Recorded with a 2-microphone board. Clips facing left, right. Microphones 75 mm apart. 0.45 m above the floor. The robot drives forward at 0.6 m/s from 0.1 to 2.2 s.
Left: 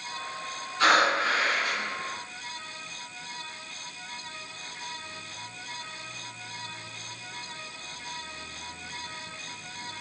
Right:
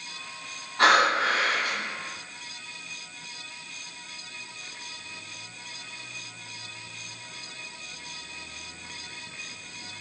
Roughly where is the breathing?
Right.